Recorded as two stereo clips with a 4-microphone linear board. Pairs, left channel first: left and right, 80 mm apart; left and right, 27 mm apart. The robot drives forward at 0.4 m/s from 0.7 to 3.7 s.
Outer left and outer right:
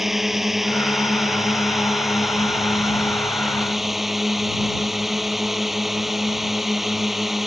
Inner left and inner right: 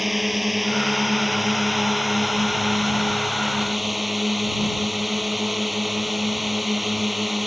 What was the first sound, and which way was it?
A drone, 5° right (ahead or behind).